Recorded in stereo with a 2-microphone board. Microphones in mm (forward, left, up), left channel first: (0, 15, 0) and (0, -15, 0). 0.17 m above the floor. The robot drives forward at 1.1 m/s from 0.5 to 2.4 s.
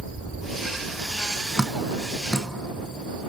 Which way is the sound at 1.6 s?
15° left (ahead or behind).